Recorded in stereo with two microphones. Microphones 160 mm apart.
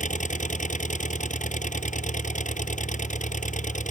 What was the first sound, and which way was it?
An engine running, 55° left (ahead or behind).